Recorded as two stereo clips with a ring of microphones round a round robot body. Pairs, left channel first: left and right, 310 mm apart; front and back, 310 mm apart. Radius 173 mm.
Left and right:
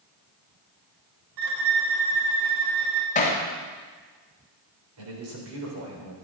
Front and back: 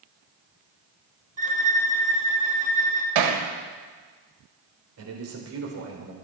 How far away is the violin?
About 2 m.